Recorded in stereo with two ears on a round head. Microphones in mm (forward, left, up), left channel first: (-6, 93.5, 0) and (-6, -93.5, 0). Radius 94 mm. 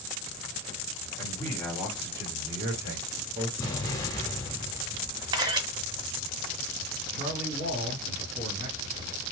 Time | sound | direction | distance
1.2 | a man speaking | 5° left (ahead or behind) | 1.6 m
3.6 | an explosion | 15° left (ahead or behind) | 0.7 m
5.3 | a camera shutter | 20° right (ahead or behind) | 0.7 m
7.1 | a man speaking | 45° right (ahead or behind) | 2.5 m